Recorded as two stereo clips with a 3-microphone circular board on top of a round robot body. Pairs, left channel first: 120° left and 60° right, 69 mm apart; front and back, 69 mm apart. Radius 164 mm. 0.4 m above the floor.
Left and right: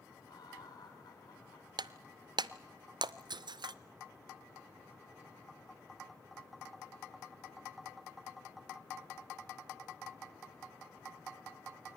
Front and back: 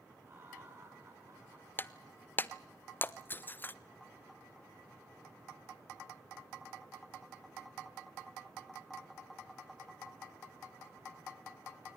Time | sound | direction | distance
0.3 | laughter | 130° left | 5 m
1.8 | breaking glass | 60° right | 0.5 m